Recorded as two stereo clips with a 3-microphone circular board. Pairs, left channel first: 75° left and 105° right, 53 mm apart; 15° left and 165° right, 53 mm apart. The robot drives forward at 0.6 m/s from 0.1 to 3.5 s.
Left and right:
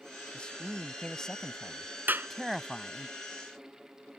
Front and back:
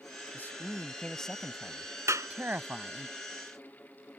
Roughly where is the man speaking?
Ahead.